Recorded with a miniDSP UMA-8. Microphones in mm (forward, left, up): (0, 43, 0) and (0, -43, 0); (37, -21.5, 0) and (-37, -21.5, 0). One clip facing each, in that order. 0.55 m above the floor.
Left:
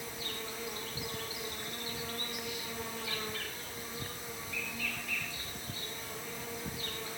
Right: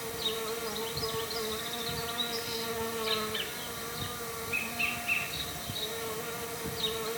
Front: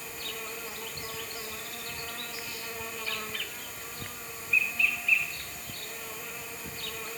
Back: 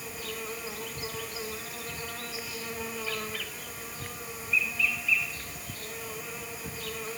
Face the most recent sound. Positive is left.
turn(degrees=-95)